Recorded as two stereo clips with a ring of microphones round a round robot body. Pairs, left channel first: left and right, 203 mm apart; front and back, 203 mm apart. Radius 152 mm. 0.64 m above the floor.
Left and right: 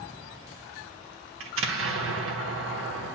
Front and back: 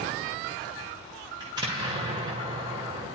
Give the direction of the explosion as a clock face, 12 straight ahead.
4 o'clock.